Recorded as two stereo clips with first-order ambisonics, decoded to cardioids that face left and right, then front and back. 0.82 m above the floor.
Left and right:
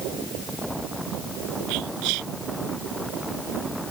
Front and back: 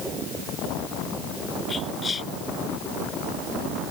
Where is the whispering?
70° right.